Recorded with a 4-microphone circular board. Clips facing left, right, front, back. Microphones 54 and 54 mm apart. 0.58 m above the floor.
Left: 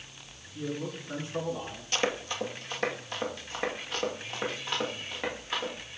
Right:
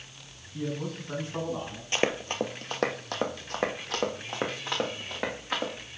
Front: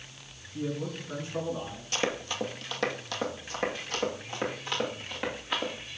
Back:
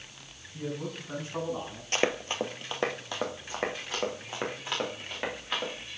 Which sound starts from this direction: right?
A man speaking, at 0.5 s.